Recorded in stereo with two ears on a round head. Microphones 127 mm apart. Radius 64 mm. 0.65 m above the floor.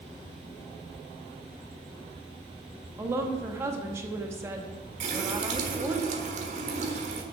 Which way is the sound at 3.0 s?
20° right (ahead or behind).